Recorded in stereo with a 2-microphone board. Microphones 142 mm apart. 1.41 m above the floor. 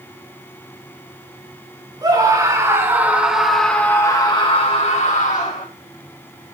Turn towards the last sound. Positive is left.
turn(degrees=75)  # may be behind; listen again after turning